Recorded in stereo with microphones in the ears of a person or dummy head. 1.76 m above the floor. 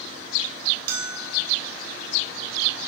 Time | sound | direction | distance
0.9 | a bell | 55° right (ahead or behind) | 1.3 m